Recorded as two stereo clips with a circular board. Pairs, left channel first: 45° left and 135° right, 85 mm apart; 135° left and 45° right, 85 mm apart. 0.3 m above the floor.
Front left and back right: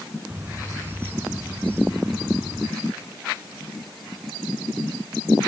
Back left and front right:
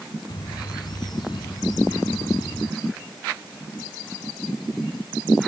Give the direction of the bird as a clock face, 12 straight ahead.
7 o'clock.